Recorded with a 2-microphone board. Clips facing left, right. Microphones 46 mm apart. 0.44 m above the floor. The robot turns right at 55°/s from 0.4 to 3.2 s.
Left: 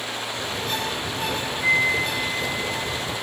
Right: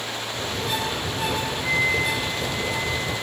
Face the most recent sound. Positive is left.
turn(degrees=170)